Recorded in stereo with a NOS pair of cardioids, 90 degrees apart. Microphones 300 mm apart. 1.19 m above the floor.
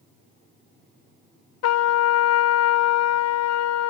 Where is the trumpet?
55° left, 0.7 m.